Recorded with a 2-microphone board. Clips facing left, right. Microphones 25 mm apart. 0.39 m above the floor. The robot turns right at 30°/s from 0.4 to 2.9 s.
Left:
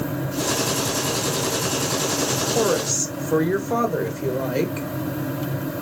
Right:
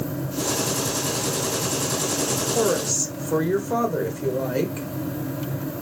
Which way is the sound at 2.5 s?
15° left (ahead or behind).